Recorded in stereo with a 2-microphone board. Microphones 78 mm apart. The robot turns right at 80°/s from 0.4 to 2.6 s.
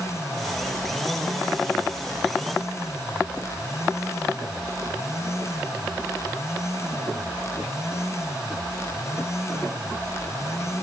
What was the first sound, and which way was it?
Only background noise.